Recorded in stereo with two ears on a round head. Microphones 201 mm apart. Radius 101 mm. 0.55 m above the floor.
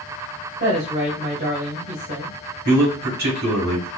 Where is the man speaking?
45° right (ahead or behind), 2.5 m.